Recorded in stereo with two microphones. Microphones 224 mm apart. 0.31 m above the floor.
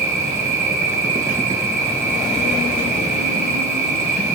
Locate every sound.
0.0 s an insect: 45° right (ahead or behind), 0.9 m